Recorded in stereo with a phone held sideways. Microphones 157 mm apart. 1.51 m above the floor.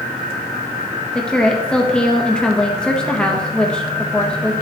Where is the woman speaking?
5° left (ahead or behind), 1.3 m.